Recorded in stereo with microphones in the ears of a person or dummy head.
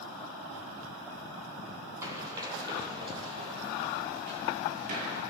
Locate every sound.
2.0 s running footsteps: 15° right (ahead or behind), 3.5 m; by 5.2 s 45° right (ahead or behind), 3 m